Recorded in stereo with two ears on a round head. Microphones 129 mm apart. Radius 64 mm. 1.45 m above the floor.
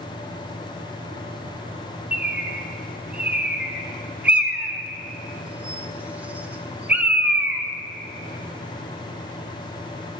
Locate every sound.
2.1 s a bird: 10° right (ahead or behind), 1.0 m